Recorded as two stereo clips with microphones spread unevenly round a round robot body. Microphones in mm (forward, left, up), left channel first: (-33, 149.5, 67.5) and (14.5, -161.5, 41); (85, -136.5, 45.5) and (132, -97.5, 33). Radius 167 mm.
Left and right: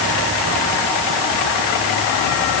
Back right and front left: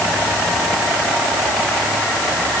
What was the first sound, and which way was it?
Only background noise.